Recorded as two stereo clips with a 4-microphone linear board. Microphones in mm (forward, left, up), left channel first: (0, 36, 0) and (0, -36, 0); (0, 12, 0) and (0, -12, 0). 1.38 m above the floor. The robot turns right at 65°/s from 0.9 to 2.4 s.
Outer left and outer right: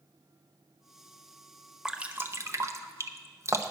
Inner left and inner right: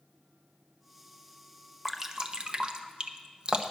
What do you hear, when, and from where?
1.9 s dripping: 10° right (ahead or behind), 0.7 m; by 3.7 s 40° right (ahead or behind), 0.7 m